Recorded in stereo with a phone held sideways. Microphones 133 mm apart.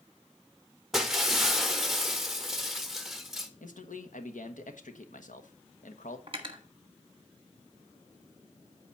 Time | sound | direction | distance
0.9 | breaking glass | centre (ahead or behind) | 1.0 m
3.6 | a man speaking | 75° left (ahead or behind) | 1.3 m
6.3 | cutlery clinking | 40° right (ahead or behind) | 1.3 m